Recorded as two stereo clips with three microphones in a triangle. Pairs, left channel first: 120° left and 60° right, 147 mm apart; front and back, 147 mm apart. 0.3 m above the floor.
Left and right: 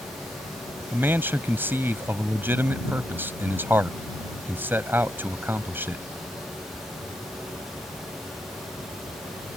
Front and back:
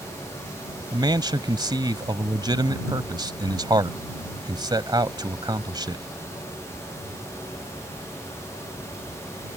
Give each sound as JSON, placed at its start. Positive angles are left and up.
{"t": 0.9, "sound": "a man speaking", "azimuth_deg": -130}